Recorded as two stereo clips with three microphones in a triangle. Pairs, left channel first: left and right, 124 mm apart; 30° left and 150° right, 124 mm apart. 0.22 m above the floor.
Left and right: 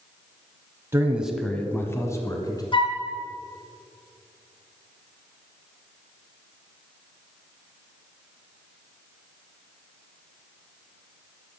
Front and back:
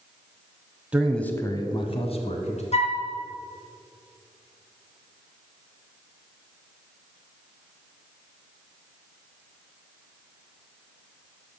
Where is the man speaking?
90° right, 1.0 m; by 2.6 s 35° left, 2 m.